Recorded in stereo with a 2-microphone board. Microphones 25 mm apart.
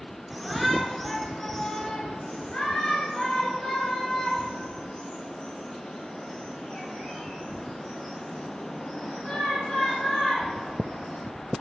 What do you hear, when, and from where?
0.3 s a shout: centre (ahead or behind), 1.3 m; by 11.2 s 40° left (ahead or behind), 5.5 m